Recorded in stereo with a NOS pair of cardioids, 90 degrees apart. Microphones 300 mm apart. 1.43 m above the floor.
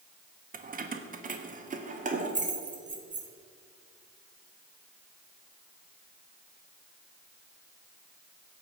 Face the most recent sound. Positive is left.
turn(degrees=-25)